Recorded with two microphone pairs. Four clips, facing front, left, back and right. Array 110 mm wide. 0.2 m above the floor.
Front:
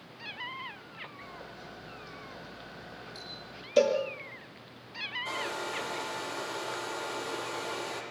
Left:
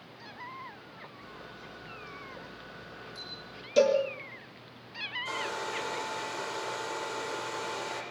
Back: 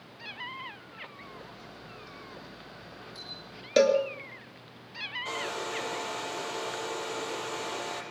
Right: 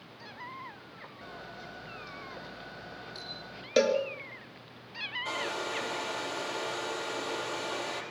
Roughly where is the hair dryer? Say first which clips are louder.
Even, back 1 dB; behind right.